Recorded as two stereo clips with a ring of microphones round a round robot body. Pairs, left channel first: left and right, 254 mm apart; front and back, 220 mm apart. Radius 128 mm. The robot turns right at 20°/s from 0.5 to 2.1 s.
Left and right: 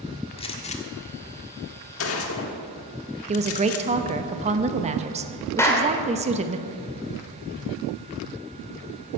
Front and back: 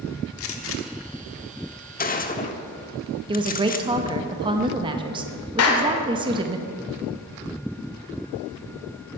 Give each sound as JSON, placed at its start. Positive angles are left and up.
{"t": 0.4, "sound": "a gunshot", "azimuth_deg": 20, "distance_m": 1.2}
{"t": 3.3, "sound": "a woman speaking", "azimuth_deg": -130, "distance_m": 0.9}
{"t": 5.6, "sound": "a clap", "azimuth_deg": 10, "distance_m": 1.9}